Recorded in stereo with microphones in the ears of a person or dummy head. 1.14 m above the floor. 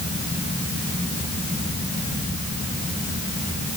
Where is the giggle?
No giggle in this recording.